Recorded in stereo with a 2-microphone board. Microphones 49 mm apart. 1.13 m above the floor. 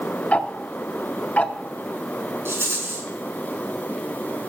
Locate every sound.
0.3 s ticking: 30° left (ahead or behind), 0.7 m
2.5 s a rattle: 60° right (ahead or behind), 4.5 m